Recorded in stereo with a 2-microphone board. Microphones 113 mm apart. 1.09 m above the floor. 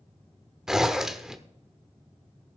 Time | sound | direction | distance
0.7 | a zipper | 5° right (ahead or behind) | 0.9 m